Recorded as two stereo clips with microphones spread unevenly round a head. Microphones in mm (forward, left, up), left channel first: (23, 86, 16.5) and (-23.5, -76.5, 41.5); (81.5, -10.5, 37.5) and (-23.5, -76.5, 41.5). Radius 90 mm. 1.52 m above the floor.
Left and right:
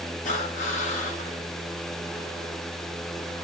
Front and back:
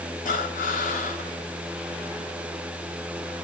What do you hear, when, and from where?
0.2 s breathing: 25° left, 4.5 m